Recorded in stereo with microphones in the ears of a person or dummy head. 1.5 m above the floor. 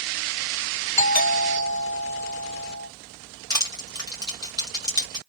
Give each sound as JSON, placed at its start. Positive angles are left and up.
{"t": 1.0, "sound": "a doorbell", "side_deg": 35, "distance_m": 1.7}
{"t": 3.5, "sound": "crushing", "side_deg": 20, "distance_m": 1.6}